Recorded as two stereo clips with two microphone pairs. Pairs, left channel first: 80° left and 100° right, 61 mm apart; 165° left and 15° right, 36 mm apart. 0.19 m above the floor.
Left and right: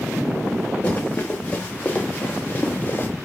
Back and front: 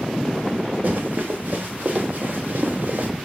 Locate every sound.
0.8 s running footsteps: 15° left, 3 m; by 3.1 s 20° left, 1.6 m